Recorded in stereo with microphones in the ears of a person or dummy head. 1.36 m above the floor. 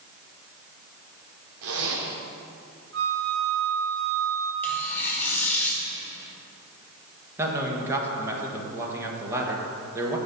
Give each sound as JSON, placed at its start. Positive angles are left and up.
{"t": 1.6, "sound": "a zipper", "side_deg": -75, "distance_m": 2.0}
{"t": 2.9, "sound": "a flute", "side_deg": -75, "distance_m": 3.0}
{"t": 4.6, "sound": "tearing paper", "side_deg": 5, "distance_m": 2.5}
{"t": 7.4, "sound": "a man speaking", "side_deg": -20, "distance_m": 1.5}